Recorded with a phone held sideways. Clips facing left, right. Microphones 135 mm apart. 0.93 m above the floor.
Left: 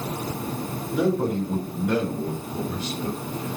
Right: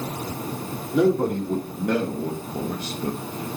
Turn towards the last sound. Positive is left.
turn(degrees=-40)  # may be behind; listen again after turning